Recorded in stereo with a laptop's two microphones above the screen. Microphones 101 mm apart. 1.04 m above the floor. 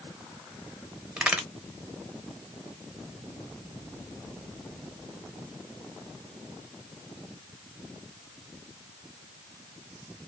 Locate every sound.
1.2 s a crack: 10° right (ahead or behind), 1.1 m